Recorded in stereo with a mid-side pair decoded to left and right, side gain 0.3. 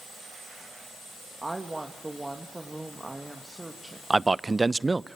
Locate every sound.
1.4 s a woman speaking: 15° right, 2.5 m
4.1 s a man speaking: 25° right, 0.7 m